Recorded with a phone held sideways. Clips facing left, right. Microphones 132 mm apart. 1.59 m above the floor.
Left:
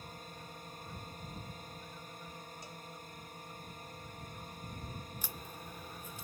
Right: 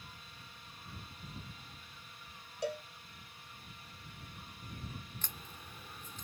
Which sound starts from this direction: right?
A cowbell, at 2.6 s.